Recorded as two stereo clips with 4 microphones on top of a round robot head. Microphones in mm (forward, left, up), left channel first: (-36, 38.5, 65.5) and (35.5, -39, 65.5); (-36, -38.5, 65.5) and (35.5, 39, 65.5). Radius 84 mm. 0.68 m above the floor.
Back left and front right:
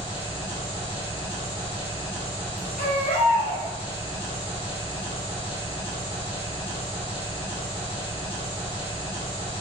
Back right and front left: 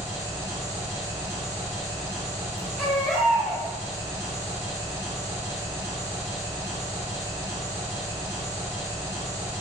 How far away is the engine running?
About 1.5 m.